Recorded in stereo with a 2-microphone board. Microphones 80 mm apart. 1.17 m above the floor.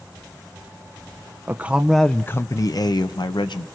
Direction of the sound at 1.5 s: 25° right (ahead or behind).